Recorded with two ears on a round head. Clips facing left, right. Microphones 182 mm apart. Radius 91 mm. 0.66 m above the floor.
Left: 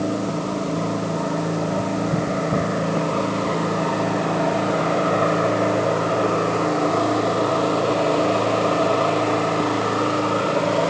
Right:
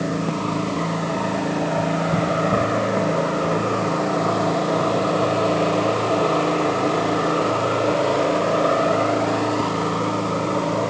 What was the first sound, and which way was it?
Only background noise.